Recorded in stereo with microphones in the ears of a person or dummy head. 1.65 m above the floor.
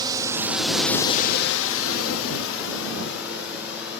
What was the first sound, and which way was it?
A drone, 25° right (ahead or behind).